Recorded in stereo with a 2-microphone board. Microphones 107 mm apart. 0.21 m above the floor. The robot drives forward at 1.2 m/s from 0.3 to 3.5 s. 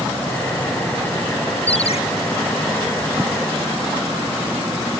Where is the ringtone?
70° left (ahead or behind); by 2.0 s 65° left (ahead or behind).